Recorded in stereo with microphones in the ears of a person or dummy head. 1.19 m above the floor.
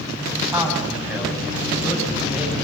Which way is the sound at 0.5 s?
10° right (ahead or behind).